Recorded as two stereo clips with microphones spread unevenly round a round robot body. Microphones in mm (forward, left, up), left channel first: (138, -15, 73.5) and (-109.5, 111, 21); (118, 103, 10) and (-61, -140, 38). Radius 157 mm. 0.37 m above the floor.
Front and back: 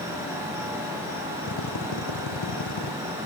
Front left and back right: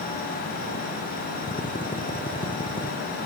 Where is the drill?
20° right.